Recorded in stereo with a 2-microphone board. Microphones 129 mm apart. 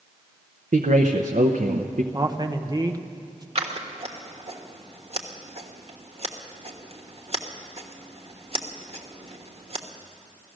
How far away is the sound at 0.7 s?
About 0.8 m.